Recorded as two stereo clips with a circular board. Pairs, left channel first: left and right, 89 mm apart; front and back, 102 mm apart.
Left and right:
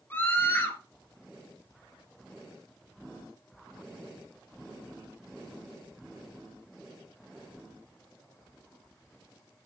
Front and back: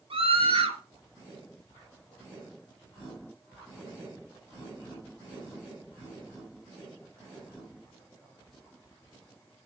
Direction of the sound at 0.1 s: 155° left.